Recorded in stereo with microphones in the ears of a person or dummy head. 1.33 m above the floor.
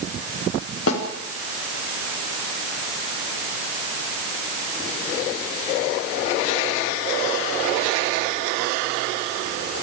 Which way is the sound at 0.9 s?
80° left.